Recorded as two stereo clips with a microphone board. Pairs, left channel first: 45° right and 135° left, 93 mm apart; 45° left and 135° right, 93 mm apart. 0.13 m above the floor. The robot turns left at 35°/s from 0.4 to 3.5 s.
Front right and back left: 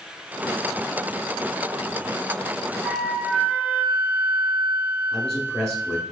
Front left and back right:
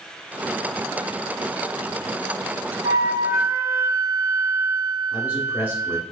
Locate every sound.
2.8 s a flute: 145° right, 0.6 m; by 6.1 s 165° right, 0.6 m
5.1 s a man speaking: 110° right, 1.5 m